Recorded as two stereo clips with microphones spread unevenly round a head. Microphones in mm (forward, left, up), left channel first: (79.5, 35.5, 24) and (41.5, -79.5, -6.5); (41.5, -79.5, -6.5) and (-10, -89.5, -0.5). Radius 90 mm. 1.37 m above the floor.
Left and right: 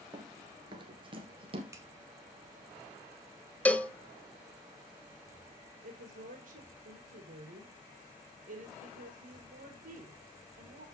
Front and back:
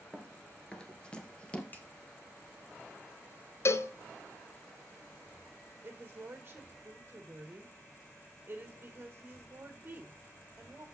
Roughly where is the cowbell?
Ahead.